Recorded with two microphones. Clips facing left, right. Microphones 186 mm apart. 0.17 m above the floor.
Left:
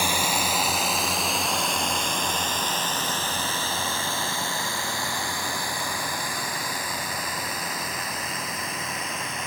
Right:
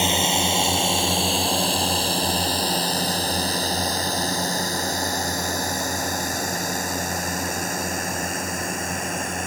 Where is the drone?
25° right (ahead or behind); by 9.5 s 50° right (ahead or behind).